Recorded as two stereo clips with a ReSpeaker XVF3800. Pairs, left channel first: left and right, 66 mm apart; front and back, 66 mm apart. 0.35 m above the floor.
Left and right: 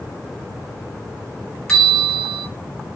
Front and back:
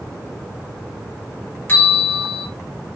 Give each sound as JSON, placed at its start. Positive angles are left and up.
{"t": 1.7, "sound": "a bell", "azimuth_deg": 20, "distance_m": 1.6}